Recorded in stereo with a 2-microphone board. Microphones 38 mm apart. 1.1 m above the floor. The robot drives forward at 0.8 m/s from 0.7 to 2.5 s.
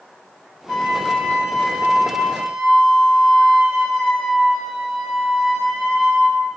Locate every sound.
0.7 s a flute: 5° left (ahead or behind), 4.5 m